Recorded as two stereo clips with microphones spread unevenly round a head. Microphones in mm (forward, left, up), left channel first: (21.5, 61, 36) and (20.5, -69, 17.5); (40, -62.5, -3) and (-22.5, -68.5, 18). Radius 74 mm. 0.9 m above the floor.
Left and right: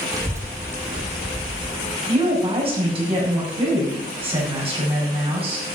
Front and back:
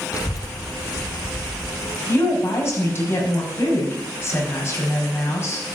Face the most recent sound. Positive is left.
turn(degrees=-45)